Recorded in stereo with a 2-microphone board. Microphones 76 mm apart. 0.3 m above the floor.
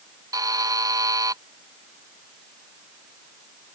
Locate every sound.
0.3 s a buzzer: 55° right (ahead or behind)